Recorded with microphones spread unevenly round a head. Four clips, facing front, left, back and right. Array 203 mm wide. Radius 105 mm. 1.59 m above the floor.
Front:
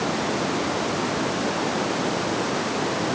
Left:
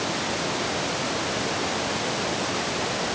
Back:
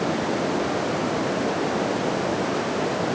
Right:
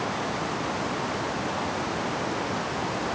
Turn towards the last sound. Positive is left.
No sound to turn to.